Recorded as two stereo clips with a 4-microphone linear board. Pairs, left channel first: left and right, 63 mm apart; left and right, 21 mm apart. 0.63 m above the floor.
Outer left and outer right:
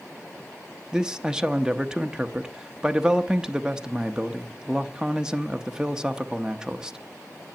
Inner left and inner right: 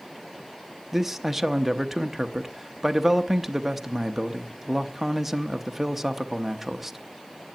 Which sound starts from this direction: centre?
A man speaking, at 0.9 s.